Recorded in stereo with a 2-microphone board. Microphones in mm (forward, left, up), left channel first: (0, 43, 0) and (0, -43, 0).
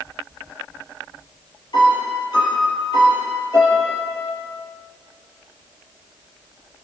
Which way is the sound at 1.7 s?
55° left (ahead or behind).